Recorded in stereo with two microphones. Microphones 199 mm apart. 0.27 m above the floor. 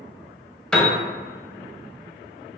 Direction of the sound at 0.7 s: 5° left (ahead or behind).